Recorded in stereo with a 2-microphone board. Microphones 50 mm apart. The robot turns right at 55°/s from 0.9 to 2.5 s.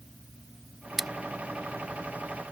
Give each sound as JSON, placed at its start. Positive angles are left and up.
{"t": 1.0, "sound": "scissors", "side_deg": -5}